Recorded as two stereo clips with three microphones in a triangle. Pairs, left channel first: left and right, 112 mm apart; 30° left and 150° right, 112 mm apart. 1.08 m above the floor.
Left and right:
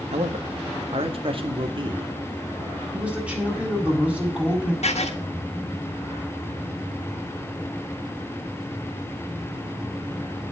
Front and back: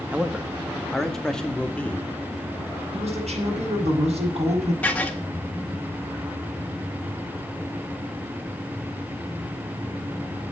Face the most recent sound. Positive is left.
turn(degrees=110)